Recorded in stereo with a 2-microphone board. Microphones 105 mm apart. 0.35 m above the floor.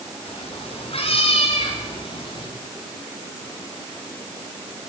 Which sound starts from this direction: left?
A cat meowing, at 0.2 s.